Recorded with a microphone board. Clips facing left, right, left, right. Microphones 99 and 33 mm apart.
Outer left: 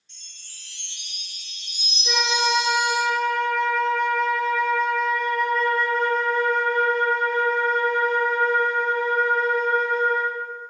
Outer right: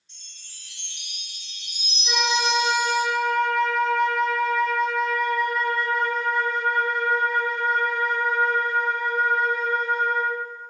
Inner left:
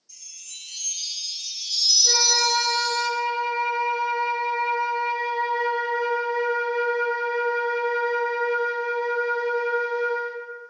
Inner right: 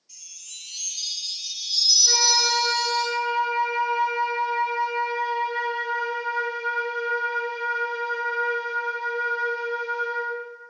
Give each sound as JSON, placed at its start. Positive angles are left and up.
{"t": 0.1, "sound": "a chime", "side_deg": -35, "distance_m": 1.5}
{"t": 2.0, "sound": "a flute", "side_deg": -10, "distance_m": 1.4}